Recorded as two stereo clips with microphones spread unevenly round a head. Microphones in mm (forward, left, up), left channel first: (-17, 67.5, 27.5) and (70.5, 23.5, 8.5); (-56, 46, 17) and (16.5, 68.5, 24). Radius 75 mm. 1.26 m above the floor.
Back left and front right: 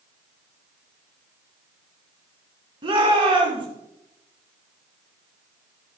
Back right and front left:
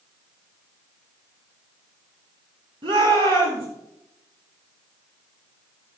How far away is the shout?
About 3 m.